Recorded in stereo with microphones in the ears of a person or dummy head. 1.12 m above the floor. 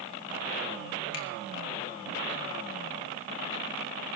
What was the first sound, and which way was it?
A finger snap, 65° left (ahead or behind).